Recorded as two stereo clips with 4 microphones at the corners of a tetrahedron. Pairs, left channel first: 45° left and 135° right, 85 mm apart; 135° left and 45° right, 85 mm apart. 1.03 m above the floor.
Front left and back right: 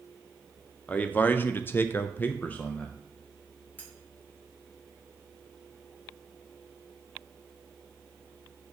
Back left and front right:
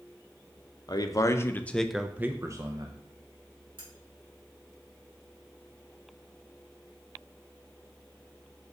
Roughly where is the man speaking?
Behind left.